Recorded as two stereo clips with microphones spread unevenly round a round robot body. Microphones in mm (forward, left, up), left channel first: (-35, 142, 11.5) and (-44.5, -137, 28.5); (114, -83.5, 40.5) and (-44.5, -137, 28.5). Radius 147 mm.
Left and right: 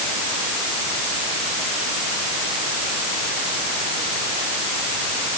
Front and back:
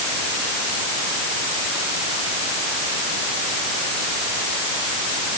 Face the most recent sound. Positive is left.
No sound to turn to.